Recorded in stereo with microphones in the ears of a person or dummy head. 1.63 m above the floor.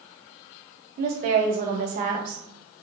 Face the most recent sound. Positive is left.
turn(degrees=-50)  # may be behind; listen again after turning